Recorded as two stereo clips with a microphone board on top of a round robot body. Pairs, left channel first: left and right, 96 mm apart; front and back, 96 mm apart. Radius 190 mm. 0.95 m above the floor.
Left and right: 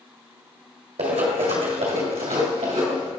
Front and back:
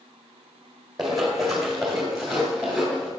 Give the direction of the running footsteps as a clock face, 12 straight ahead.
3 o'clock.